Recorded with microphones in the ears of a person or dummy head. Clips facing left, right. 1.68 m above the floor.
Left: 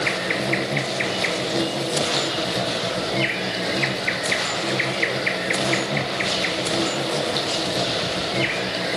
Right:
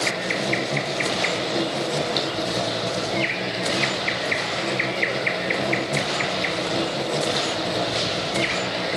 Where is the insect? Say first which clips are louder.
Left 1 dB; 5° left (ahead or behind), 2.5 m.